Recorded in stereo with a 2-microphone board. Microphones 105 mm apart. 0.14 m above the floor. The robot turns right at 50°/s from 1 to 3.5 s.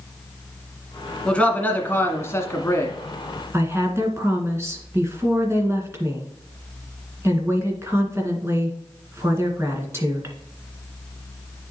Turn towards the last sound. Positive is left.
turn(degrees=-25)  # may be behind; listen again after turning